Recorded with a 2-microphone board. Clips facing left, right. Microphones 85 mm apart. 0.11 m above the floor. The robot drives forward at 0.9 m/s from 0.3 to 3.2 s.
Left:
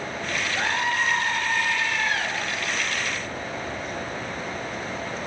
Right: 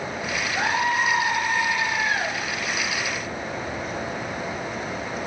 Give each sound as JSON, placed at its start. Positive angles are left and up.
{"t": 0.6, "sound": "a scream", "side_deg": -20, "distance_m": 3.0}